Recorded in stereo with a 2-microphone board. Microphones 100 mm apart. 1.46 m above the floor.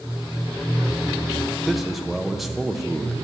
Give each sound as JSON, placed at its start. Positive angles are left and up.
{"t": 1.7, "sound": "a man speaking", "side_deg": 0, "distance_m": 1.0}